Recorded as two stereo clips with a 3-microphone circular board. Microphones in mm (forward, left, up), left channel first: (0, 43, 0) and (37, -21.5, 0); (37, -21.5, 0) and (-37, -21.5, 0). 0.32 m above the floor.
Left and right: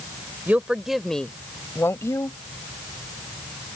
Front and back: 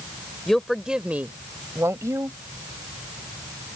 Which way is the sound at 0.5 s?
75° right.